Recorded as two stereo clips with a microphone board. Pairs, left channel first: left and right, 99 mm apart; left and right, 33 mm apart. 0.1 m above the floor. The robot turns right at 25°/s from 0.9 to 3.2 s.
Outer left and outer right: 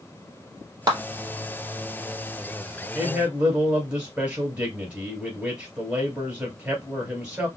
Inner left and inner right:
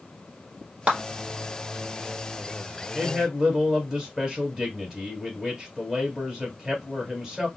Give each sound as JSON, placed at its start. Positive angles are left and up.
{"t": 0.9, "sound": "a clap", "side_deg": -40, "distance_m": 1.7}
{"t": 3.0, "sound": "a man speaking", "side_deg": -15, "distance_m": 2.0}